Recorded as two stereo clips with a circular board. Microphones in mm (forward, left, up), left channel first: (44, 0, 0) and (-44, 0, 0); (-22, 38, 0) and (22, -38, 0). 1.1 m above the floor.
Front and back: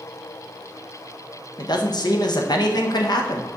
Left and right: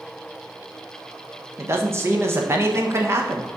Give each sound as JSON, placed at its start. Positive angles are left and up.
{"t": 1.6, "sound": "a man speaking", "azimuth_deg": -10, "distance_m": 1.1}